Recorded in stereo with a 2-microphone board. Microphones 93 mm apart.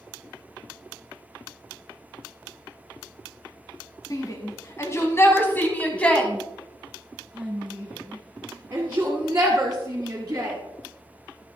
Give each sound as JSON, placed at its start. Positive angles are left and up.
{"t": 4.1, "sound": "a shout", "side_deg": 40, "distance_m": 1.8}